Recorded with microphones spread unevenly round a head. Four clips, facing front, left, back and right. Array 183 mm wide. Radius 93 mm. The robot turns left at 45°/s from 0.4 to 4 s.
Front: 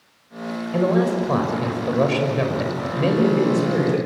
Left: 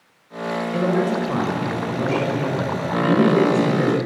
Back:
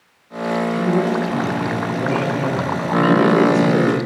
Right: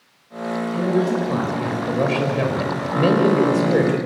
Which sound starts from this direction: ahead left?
A man speaking, at 0.7 s.